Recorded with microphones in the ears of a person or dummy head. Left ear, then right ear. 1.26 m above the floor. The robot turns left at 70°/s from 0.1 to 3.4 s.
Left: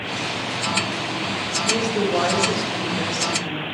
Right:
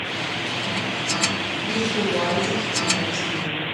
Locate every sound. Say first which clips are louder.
1.6 s a woman speaking: left 2 dB; 120° left, 1.7 m; by 3.6 s 5° right, 1.7 m